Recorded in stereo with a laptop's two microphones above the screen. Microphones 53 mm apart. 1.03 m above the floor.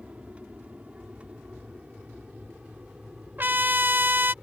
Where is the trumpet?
40° right (ahead or behind).